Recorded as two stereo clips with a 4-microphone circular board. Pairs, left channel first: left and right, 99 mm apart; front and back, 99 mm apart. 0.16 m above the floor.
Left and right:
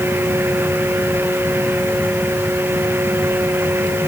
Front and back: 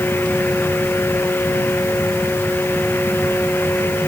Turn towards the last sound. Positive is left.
No sound to turn to.